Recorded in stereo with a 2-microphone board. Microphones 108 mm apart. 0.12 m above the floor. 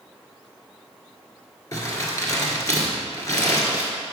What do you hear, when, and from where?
1.7 s crumpling: 30° left (ahead or behind), 1.5 m